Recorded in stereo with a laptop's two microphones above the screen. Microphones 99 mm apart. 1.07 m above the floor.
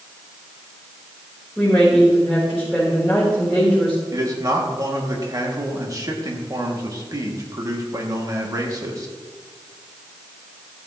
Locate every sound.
1.6 s a woman speaking: 5° right (ahead or behind), 4 m
4.1 s a man speaking: 35° right (ahead or behind), 2.5 m